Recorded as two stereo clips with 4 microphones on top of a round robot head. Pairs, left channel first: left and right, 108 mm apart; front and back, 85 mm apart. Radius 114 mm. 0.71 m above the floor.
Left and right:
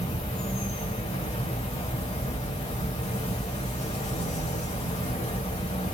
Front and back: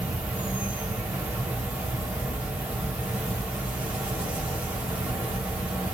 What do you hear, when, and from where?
0.0 s an insect: 105° left, 1.7 m